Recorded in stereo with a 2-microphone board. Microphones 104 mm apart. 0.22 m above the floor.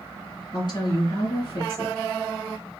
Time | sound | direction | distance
0.5 | a woman speaking | 50° left (ahead or behind) | 2.5 m